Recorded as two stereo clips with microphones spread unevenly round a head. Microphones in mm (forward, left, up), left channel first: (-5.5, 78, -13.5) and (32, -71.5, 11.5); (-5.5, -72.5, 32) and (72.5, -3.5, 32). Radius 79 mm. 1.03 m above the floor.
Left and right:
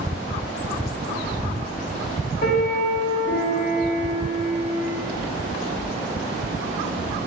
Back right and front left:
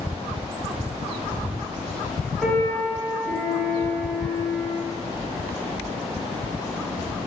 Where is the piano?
130° left, 1.3 m.